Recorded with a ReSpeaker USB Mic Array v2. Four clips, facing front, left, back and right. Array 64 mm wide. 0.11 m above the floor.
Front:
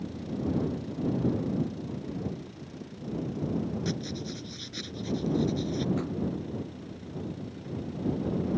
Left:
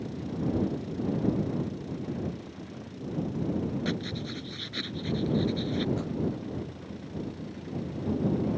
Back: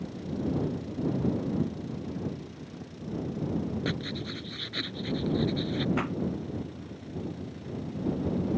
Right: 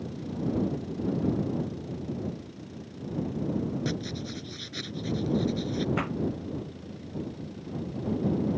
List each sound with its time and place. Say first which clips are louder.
3.9 s writing: even, even; 160° left
6.0 s a pop: right 3 dB, back 2 dB; 130° right